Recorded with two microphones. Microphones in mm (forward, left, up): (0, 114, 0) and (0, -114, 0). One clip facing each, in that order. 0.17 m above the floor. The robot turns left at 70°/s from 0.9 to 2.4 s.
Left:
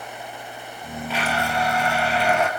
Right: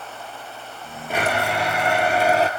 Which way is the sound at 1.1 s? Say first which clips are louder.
Right 3 dB; 55° right.